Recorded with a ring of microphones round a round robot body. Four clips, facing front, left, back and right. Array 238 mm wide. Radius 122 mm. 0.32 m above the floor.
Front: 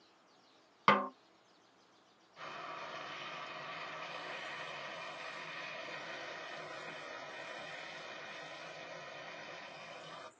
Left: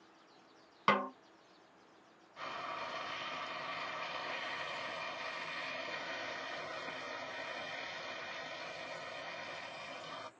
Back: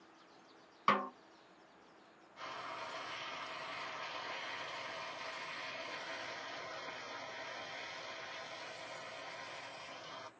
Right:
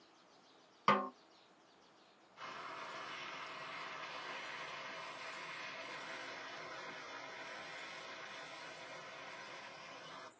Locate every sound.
0.9 s a snare drum: 20° left, 0.5 m
2.4 s frying: 75° left, 1.2 m